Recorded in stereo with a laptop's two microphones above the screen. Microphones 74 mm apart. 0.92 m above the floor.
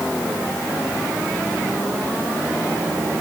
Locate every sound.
Only background noise.